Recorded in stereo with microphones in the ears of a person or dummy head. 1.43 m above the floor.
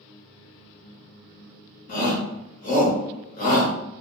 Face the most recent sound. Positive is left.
turn(degrees=45)  # may be behind; listen again after turning